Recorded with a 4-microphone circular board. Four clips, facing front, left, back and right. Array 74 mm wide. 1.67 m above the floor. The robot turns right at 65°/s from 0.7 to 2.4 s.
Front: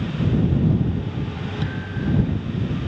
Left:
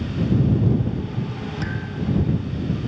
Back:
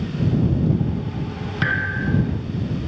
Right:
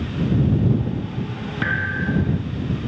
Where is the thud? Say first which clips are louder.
Right 8 dB, back 8 dB; 150° right; by 2.4 s 100° right.